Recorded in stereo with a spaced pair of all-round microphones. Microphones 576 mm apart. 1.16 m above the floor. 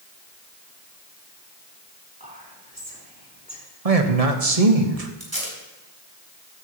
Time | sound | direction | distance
2.2 | whispering | 15° right (ahead or behind) | 4.5 m
3.9 | a man speaking | 75° right (ahead or behind) | 1.5 m
5.2 | tape being pulled | 35° right (ahead or behind) | 4 m